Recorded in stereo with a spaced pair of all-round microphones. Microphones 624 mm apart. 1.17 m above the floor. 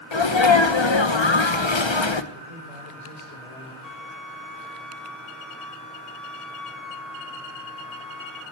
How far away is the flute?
About 1.6 m.